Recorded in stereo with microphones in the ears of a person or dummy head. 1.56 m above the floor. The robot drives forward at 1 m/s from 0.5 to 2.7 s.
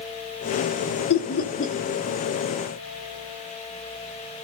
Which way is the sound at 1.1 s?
60° left (ahead or behind).